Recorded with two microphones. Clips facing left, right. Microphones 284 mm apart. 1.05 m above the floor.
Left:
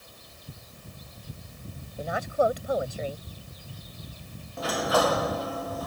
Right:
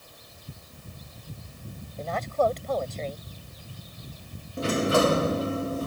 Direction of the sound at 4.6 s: 30° right (ahead or behind).